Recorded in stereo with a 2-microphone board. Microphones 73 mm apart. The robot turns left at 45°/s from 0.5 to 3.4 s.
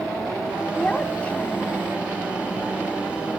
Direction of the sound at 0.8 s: 10° left (ahead or behind).